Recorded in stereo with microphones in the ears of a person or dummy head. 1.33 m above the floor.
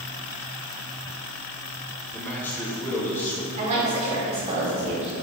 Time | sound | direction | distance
2.1 | a man speaking | 10° left (ahead or behind) | 4 m
3.6 | a woman speaking | 40° right (ahead or behind) | 4 m